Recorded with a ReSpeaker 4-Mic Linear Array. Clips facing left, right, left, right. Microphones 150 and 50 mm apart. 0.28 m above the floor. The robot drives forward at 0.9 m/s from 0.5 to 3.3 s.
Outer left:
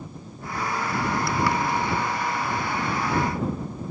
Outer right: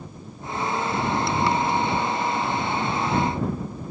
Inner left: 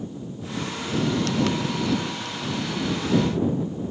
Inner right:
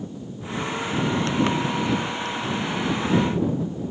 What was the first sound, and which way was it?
Only background noise.